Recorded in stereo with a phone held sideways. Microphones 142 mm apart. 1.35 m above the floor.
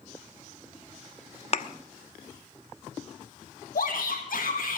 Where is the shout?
75° left (ahead or behind), 2.0 m.